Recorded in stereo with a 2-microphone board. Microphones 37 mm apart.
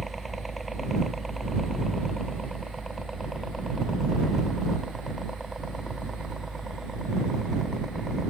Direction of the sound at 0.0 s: Centre (ahead or behind).